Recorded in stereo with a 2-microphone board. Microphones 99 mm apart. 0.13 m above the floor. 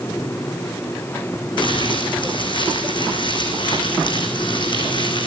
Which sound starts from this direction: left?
Crumpling, at 1.6 s.